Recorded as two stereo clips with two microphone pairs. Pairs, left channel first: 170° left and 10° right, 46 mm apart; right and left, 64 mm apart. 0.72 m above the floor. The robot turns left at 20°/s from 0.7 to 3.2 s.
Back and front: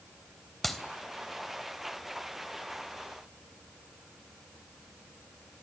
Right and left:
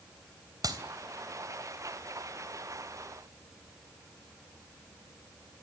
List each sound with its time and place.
0.6 s a clap: 80° left, 3 m